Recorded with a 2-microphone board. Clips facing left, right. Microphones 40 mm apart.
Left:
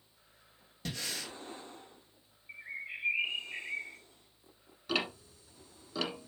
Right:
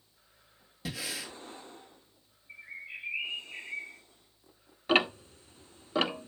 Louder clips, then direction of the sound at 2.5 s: Left 1 dB; 55° left (ahead or behind).